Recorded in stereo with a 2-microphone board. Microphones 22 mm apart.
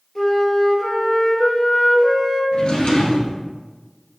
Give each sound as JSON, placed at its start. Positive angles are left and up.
{"t": 0.1, "sound": "a flute", "side_deg": 5, "distance_m": 1.4}
{"t": 2.5, "sound": "a drawer", "side_deg": 55, "distance_m": 1.4}